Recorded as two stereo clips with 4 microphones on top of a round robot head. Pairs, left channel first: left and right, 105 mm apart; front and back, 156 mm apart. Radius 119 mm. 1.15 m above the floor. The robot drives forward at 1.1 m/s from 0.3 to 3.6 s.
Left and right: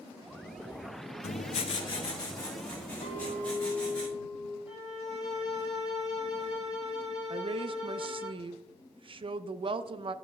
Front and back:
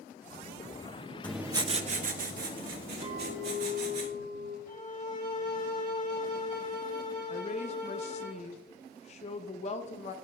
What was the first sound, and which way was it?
Writing, 80° left.